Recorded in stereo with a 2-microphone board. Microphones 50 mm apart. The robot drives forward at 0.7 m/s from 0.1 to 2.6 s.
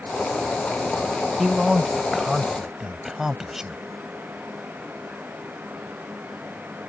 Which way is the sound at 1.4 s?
15° right (ahead or behind).